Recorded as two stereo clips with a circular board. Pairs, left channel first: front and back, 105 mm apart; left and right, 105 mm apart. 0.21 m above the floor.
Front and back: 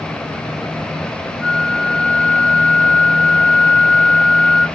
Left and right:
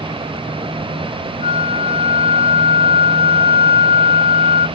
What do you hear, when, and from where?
1.4 s a flute: 80° right, 0.7 m